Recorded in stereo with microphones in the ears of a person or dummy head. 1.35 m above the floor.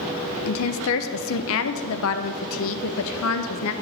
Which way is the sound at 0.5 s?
75° left (ahead or behind).